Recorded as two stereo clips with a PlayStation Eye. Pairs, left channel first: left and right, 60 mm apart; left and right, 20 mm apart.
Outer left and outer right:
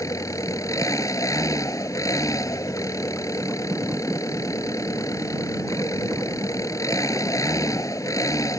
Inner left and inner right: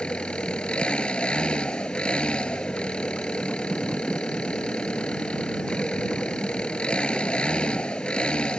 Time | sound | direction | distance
0.0 | an engine running | 70° left (ahead or behind) | ?